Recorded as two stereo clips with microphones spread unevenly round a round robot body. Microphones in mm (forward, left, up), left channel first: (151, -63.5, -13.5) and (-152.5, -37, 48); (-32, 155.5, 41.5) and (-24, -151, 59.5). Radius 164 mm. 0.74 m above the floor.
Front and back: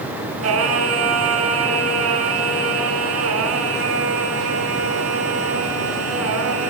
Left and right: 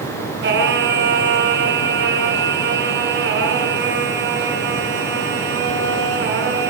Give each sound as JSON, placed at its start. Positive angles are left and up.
{"t": 0.4, "sound": "singing", "azimuth_deg": -145, "distance_m": 8.0}